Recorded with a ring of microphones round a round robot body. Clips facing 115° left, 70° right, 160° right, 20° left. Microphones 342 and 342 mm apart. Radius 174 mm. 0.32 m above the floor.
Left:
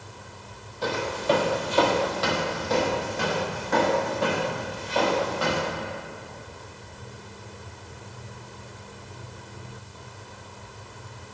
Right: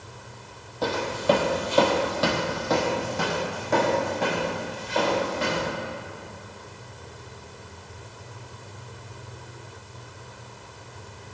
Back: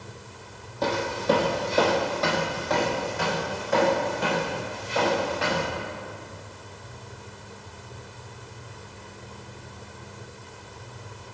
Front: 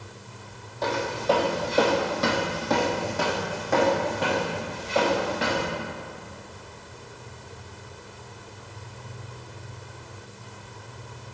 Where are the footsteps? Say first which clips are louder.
Right 2 dB, back 1 dB; 105° right, 0.9 m; by 5.7 s straight ahead, 2.5 m.